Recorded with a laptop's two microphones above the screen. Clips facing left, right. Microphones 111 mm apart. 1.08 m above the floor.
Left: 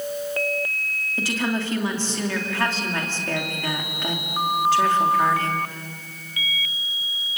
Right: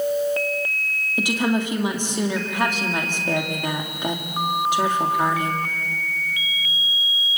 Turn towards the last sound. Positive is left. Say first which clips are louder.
# right 4 dB
turn(degrees=-15)  # may be behind; listen again after turning